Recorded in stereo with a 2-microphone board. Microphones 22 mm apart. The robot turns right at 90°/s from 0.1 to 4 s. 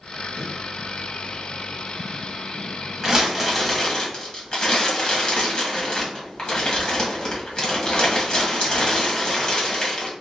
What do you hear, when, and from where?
0.4 s a snare drum: 35° right (ahead or behind), 1.3 m; by 0.5 s 40° right (ahead or behind), 1.3 m
3.0 s crumpling: 45° right, 1.5 m; by 10.1 s 40° left, 1.5 m